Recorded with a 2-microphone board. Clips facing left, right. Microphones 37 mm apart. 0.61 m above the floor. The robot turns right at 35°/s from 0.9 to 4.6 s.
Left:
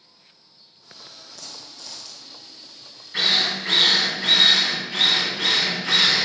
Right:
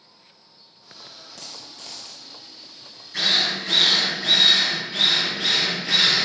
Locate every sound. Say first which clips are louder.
1.4 s a dropped coin: right 1 dB; 65° right, 1.4 m; by 2.3 s 35° right, 1.4 m
3.1 s a drill: left 1 dB; 25° left, 2.5 m; by 6.3 s 80° left, 2.5 m